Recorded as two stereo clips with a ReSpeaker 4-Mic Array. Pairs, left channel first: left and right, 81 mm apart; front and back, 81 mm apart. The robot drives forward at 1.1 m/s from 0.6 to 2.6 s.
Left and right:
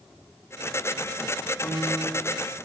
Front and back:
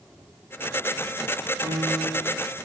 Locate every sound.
1.6 s a piano: 155° left, 4.5 m; by 2.3 s 160° left, 5 m